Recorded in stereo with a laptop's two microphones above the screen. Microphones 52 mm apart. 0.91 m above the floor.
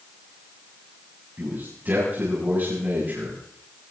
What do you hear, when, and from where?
1.4 s a man speaking: 40° right (ahead or behind), 5.5 m